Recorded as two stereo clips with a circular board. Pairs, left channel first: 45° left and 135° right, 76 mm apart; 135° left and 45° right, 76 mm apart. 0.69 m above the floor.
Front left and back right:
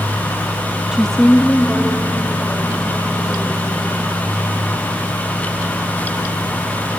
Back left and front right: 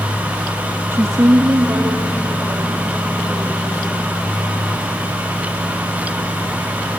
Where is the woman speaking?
65° right, 0.5 m; by 3.8 s 10° right, 3.5 m.